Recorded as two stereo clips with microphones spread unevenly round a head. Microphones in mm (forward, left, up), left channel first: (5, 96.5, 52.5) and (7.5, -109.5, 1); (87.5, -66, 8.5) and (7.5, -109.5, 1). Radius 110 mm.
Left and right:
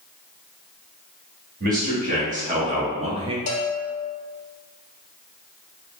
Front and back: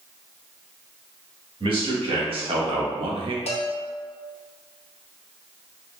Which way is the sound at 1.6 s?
140° right.